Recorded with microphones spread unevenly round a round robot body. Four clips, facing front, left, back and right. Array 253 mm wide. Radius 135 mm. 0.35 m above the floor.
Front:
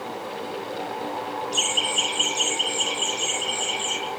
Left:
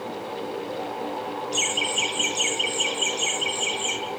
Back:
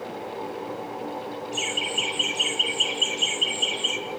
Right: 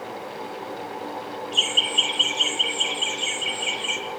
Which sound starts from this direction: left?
Laughter, at 1.5 s.